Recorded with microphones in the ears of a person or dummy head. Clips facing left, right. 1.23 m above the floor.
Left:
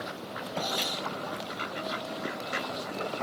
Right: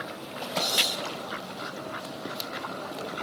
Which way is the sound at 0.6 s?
30° right (ahead or behind).